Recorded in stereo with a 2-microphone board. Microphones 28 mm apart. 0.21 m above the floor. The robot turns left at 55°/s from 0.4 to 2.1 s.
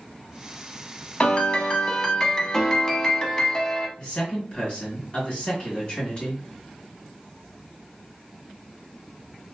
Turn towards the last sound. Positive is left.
turn(degrees=35)  # may be behind; listen again after turning